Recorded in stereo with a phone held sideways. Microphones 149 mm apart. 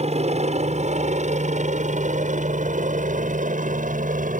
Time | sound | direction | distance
0.0 | a helicopter | 45° right (ahead or behind) | ?